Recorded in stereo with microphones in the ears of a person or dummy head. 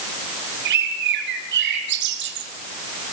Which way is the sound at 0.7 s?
60° right (ahead or behind).